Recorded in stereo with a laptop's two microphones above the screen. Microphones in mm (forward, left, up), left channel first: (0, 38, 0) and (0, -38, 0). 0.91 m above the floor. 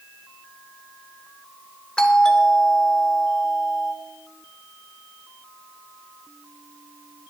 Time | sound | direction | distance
2.0 | a doorbell | 10° left (ahead or behind) | 1.2 m